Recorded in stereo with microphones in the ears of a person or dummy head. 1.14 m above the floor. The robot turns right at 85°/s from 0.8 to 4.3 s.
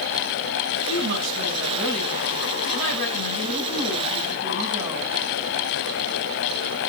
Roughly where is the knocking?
I don't hear knocking.